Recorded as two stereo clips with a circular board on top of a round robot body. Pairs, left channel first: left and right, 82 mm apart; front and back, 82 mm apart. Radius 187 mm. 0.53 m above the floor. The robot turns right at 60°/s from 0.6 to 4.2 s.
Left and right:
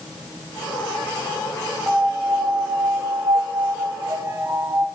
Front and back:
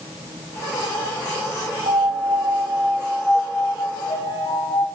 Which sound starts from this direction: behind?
A piano, at 1.9 s.